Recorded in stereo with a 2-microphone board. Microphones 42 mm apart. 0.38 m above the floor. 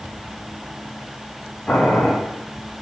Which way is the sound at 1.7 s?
20° left (ahead or behind).